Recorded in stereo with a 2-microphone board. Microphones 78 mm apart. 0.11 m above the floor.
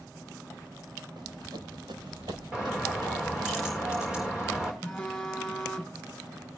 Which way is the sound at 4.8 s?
10° left (ahead or behind).